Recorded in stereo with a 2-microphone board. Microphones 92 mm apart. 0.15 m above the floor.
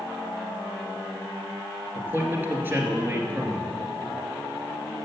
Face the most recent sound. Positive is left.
turn(degrees=-20)  # may be behind; listen again after turning